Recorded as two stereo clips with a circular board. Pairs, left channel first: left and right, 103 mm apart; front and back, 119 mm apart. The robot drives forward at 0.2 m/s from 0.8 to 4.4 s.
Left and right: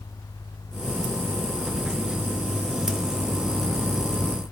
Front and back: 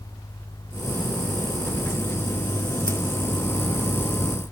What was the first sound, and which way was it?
Only background noise.